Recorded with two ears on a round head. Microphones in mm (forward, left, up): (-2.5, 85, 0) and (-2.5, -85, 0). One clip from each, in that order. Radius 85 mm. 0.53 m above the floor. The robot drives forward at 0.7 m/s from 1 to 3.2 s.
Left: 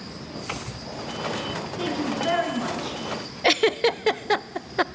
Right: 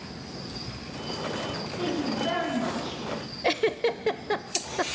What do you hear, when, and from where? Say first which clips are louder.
1.8 s a woman speaking: left 2 dB; 30° left (ahead or behind), 7.5 m; by 3.0 s 25° left (ahead or behind), 8.5 m
3.4 s a giggle: left 5 dB; 35° left (ahead or behind), 0.6 m